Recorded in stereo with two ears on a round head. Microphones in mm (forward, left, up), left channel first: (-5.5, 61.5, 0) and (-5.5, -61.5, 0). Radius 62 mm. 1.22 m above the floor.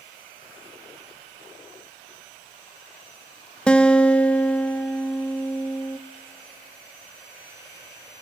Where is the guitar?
5° left (ahead or behind), 0.6 m.